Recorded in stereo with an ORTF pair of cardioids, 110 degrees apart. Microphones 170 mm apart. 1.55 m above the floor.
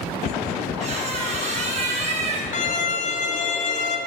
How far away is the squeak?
About 1.5 m.